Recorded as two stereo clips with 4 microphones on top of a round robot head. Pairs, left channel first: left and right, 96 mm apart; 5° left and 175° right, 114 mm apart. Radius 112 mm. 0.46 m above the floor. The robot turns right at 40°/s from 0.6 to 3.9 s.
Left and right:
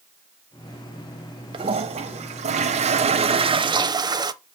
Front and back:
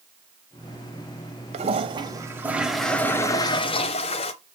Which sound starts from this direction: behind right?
A toilet flushing, at 1.5 s.